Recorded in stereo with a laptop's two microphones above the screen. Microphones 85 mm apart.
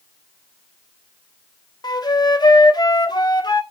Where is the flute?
55° left (ahead or behind), 1.2 m.